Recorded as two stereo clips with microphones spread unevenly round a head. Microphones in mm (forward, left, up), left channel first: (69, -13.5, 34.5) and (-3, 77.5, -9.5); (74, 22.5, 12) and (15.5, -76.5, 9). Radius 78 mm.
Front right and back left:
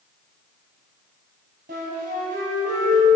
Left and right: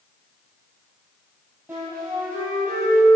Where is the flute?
160° left, 6 m.